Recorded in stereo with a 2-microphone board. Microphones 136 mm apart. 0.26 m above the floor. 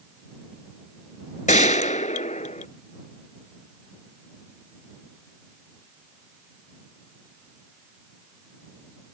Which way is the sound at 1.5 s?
75° left (ahead or behind).